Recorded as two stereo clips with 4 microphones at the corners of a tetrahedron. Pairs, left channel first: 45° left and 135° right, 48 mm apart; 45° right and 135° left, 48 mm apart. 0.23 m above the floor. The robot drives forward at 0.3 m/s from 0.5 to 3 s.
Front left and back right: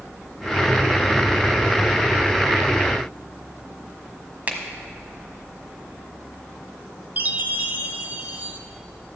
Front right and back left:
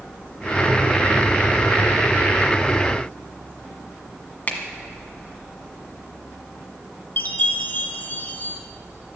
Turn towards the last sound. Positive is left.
turn(degrees=-90)